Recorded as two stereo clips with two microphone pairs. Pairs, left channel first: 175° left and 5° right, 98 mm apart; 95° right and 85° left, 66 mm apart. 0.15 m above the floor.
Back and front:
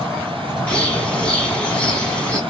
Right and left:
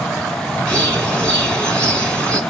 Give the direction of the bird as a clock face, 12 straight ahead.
4 o'clock.